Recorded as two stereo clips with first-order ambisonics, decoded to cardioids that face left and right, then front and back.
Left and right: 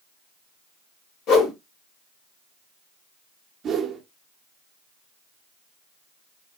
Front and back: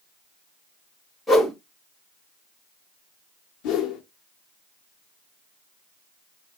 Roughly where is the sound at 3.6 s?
Ahead right.